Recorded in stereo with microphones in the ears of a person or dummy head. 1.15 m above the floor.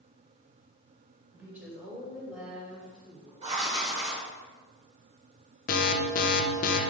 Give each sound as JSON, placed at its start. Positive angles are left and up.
{"t": 1.3, "sound": "a woman speaking", "side_deg": -15, "distance_m": 3.5}
{"t": 3.4, "sound": "writing", "side_deg": -35, "distance_m": 2.5}
{"t": 5.7, "sound": "an alarm", "side_deg": 45, "distance_m": 0.8}